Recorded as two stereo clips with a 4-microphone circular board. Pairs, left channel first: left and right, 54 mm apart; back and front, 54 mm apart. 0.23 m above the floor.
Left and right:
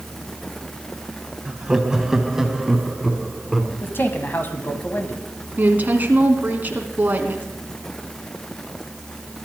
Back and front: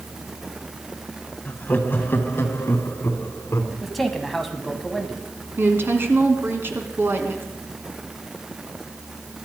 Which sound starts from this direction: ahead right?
A woman speaking, at 5.6 s.